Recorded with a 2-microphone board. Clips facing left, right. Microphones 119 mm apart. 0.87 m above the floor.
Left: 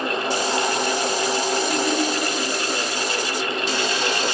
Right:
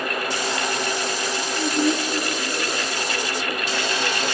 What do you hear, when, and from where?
1.5 s a woman speaking: 35° right (ahead or behind), 1.9 m